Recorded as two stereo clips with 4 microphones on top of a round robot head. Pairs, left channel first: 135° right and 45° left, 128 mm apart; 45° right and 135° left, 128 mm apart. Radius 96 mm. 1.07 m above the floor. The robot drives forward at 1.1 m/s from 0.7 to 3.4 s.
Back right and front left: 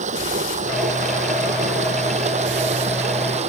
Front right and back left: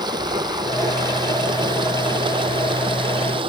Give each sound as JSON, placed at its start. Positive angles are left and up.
{"t": 0.0, "sound": "running water", "azimuth_deg": 75}